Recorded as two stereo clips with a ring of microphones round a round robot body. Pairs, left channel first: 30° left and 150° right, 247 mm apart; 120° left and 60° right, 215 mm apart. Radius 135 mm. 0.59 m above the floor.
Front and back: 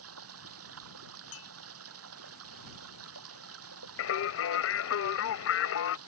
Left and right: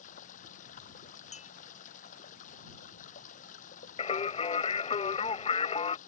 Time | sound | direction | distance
0.0 | running water | straight behind | ?
1.3 | a clink | 65° left | ?
4.0 | singing | 60° left | ?